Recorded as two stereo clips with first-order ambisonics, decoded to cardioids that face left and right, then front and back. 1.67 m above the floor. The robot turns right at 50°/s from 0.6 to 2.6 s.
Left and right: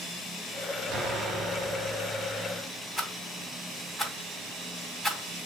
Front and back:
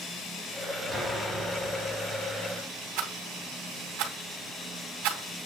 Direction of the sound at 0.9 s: 125° right.